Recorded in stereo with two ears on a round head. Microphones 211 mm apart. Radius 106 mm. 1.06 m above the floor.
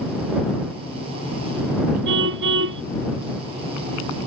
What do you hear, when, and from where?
2.0 s a car horn: 55° right (ahead or behind)